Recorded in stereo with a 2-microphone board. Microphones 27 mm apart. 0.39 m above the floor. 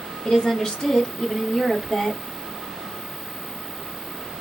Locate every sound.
0.2 s a woman speaking: 30° left (ahead or behind), 1.2 m; by 2.2 s 10° left (ahead or behind), 1.4 m